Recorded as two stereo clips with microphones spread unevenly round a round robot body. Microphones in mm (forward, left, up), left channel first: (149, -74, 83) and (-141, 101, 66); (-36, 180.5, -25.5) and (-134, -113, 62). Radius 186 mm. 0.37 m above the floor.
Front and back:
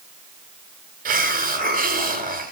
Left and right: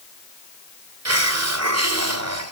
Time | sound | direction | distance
1.1 | a hiss | 150° right | 1.3 m